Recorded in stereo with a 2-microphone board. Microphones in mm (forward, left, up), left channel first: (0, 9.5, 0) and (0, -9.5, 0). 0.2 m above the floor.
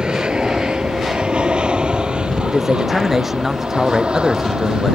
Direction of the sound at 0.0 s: 60° right (ahead or behind).